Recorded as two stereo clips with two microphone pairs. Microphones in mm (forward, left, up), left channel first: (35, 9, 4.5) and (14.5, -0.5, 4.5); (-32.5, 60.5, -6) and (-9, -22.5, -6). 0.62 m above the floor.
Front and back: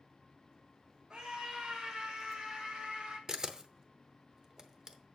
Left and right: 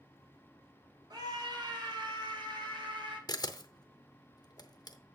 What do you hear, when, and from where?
1.1 s a scream: 110° right, 2.5 m; by 3.2 s 105° right, 5.5 m
3.3 s a camera shutter: 145° left, 0.8 m